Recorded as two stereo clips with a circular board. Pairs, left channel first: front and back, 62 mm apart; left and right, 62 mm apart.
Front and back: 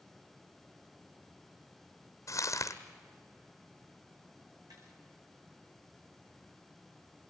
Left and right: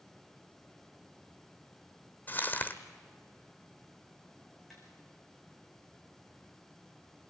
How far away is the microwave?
No microwave in this recording.